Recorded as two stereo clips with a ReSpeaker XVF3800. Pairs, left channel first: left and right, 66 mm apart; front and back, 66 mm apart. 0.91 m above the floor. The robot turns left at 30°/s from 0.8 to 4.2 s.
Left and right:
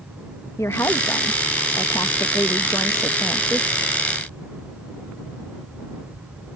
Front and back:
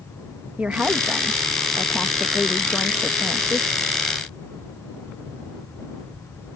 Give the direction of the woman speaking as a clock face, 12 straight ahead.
8 o'clock.